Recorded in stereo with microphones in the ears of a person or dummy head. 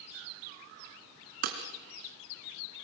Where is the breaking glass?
50° right (ahead or behind), 2.5 m.